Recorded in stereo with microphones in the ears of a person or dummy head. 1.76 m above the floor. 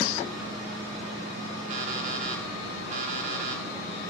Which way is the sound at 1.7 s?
45° right (ahead or behind).